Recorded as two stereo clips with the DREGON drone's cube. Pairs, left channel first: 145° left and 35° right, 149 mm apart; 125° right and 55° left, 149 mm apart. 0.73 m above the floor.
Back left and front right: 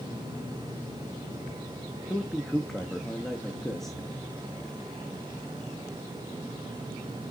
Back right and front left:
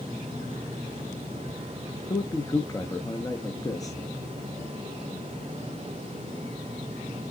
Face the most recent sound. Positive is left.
turn(degrees=-130)